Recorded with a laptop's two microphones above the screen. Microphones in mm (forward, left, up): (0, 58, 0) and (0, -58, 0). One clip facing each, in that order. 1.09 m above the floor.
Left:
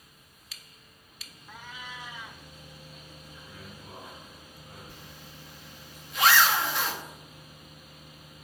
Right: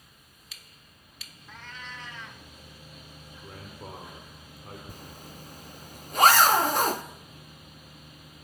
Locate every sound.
1.5 s a cat meowing: 10° left (ahead or behind), 1.4 m
3.4 s a man speaking: 55° right (ahead or behind), 3 m
4.9 s a zipper: 45° right (ahead or behind), 0.6 m